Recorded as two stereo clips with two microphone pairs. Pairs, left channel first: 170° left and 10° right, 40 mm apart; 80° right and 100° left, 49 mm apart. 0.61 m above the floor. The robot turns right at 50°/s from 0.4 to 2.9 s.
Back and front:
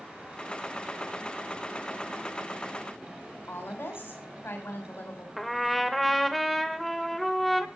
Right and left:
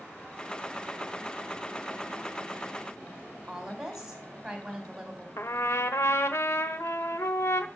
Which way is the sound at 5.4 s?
100° right.